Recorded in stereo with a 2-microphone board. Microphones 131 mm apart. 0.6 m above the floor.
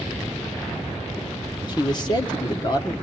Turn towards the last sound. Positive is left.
turn(degrees=35)  # may be behind; listen again after turning